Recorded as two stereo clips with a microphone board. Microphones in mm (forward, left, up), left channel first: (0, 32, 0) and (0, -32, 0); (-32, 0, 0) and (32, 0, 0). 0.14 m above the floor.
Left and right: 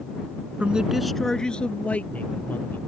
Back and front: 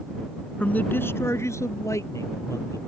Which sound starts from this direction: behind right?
A man speaking, at 0.6 s.